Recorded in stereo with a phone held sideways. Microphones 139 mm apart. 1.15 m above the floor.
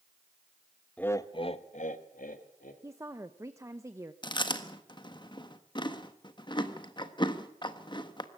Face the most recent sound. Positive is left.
turn(degrees=35)  # may be behind; listen again after turning